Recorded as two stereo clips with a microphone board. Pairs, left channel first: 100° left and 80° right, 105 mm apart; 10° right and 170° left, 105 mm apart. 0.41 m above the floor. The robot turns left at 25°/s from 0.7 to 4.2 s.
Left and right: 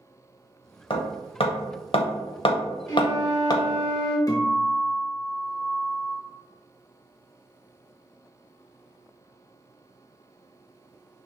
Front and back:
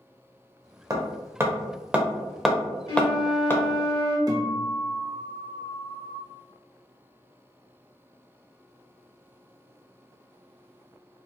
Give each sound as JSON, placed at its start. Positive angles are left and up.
{"t": 0.9, "sound": "hammering", "azimuth_deg": 120, "distance_m": 0.5}
{"t": 2.9, "sound": "a flute", "azimuth_deg": 40, "distance_m": 1.6}
{"t": 4.3, "sound": "a guitar", "azimuth_deg": 135, "distance_m": 0.8}